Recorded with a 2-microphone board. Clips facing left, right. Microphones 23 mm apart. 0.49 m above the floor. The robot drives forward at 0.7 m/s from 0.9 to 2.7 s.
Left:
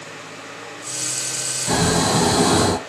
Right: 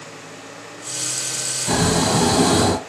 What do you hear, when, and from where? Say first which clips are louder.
1.7 s snoring: even; 10° left (ahead or behind), 1.6 m